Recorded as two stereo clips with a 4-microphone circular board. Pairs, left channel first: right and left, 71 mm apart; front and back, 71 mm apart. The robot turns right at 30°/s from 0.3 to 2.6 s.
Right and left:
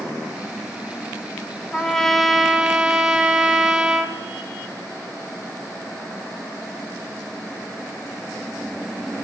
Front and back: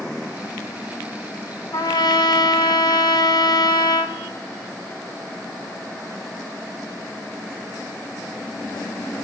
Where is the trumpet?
15° right, 1.0 m; by 4.2 s 15° left, 1.0 m.